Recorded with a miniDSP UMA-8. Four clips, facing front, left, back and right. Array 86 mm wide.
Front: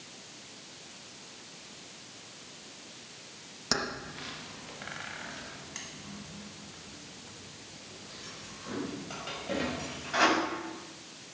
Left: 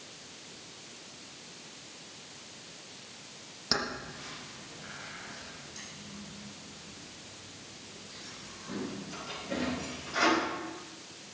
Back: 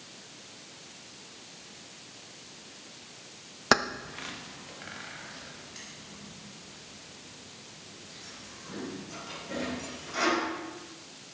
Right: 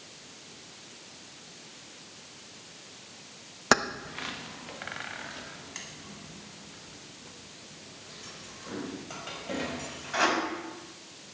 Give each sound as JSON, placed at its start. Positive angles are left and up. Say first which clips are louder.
{"t": 3.7, "sound": "keys jangling", "louder": "right 9 dB, back 8 dB", "azimuth_deg": -130, "distance_m": 0.9}